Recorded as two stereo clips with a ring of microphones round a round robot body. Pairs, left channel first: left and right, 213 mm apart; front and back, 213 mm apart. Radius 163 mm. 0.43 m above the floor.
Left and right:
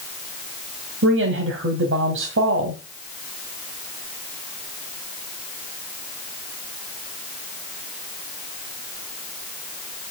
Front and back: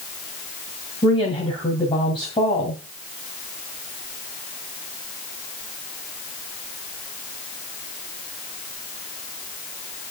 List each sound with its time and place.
1.0 s a woman speaking: 70° right, 2.5 m